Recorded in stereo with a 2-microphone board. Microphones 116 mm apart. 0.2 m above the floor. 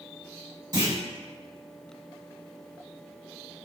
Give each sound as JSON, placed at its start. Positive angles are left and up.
{"t": 0.7, "sound": "a clunk", "side_deg": -35, "distance_m": 1.6}